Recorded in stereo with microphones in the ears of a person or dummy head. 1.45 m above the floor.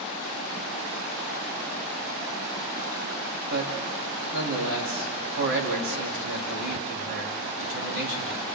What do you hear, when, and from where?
3.5 s a man speaking: 70° right (ahead or behind), 3 m